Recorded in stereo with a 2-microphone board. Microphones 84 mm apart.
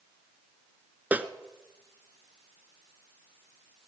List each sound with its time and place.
1.1 s a snare drum: 20° right (ahead or behind), 1.1 m